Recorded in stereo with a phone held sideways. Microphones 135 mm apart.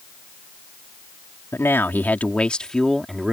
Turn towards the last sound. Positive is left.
turn(degrees=-5)  # may be behind; listen again after turning